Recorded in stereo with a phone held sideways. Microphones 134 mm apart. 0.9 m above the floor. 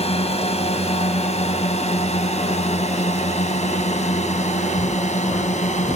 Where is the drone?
50° left (ahead or behind); by 6.0 s 60° left (ahead or behind).